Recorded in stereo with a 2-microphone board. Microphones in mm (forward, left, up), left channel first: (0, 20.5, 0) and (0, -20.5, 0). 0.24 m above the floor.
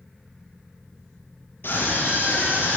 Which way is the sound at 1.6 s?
55° left (ahead or behind).